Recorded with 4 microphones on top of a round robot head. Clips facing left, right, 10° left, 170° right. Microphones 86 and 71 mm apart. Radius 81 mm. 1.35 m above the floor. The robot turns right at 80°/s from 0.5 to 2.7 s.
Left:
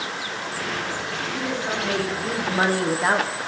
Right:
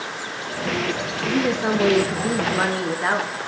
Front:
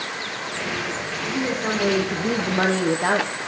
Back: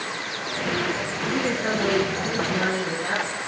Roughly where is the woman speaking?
Right.